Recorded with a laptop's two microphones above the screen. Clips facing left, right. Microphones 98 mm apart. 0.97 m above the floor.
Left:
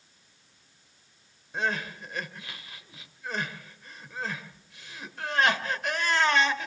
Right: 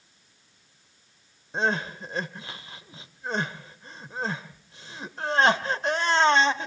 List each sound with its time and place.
1.5 s crying: 30° right (ahead or behind), 1.0 m